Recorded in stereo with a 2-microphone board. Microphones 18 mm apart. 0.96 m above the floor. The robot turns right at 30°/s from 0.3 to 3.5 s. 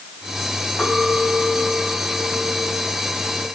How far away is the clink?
About 6 m.